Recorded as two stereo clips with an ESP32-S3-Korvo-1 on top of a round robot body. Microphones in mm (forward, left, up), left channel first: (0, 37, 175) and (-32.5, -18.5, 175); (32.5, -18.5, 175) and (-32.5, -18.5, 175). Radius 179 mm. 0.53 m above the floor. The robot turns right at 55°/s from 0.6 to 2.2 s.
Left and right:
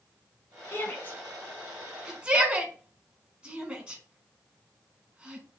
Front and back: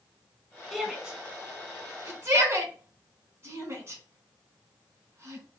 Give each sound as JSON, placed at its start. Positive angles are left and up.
{"t": 0.7, "sound": "a shout", "azimuth_deg": 85, "distance_m": 1.4}